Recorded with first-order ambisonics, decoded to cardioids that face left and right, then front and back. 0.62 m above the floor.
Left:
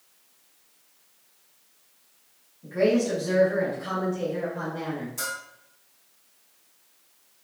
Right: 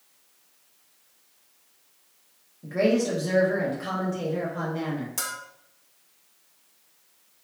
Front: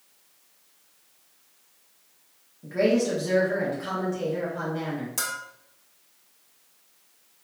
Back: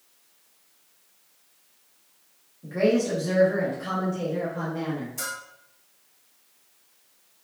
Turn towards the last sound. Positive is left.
turn(degrees=-40)